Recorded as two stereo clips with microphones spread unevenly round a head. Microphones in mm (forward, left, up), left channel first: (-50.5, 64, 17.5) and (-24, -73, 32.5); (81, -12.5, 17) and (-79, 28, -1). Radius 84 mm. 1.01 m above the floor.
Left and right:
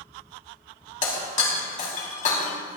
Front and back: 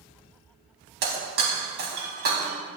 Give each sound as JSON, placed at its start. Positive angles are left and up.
{"t": 1.0, "sound": "breaking glass", "azimuth_deg": 135, "distance_m": 4.0}